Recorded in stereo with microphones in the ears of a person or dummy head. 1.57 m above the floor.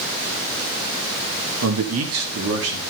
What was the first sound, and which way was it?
A man speaking, 85° right.